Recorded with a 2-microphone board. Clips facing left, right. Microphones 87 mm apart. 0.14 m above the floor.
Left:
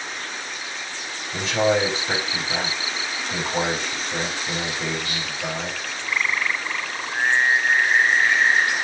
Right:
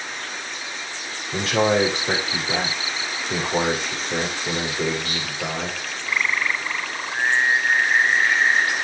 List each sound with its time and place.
1.3 s a man speaking: 70° right (ahead or behind), 5.5 m